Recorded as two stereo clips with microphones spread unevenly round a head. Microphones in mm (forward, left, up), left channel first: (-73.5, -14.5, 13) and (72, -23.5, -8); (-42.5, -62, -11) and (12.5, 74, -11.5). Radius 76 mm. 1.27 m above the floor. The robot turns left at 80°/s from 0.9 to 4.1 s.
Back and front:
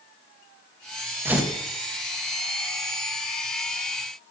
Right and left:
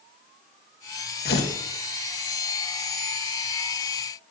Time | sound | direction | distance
1.2 | tearing paper | 80° right | 1.3 m